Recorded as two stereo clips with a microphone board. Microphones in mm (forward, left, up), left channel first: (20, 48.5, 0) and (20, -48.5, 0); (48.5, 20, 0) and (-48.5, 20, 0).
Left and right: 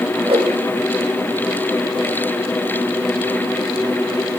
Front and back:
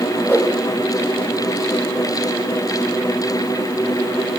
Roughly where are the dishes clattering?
I don't hear dishes clattering.